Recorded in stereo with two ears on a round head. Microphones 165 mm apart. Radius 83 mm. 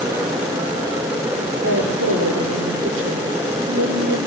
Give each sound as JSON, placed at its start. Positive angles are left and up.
{"t": 1.6, "sound": "a woman speaking", "side_deg": -75, "distance_m": 8.0}